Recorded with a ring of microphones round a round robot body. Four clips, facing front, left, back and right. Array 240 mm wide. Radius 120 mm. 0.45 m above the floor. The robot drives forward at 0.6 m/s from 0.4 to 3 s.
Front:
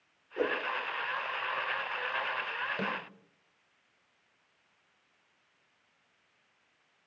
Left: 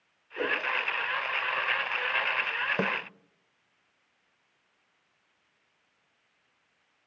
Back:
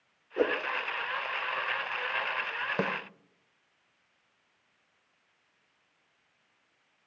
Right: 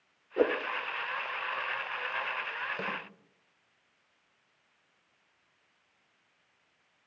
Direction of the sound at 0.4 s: 120° right.